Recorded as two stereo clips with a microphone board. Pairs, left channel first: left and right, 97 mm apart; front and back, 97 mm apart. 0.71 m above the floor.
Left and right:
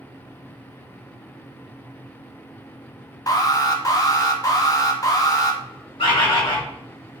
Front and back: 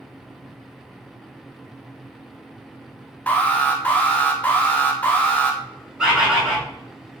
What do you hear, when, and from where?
3.3 s an alarm: 65° left, 0.7 m
6.0 s a bird: 100° left, 2.0 m